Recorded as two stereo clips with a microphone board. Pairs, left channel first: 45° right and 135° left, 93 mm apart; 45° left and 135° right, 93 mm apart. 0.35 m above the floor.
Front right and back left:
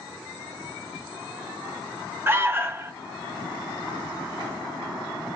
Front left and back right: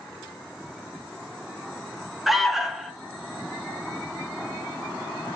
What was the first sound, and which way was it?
An alarm, 140° left.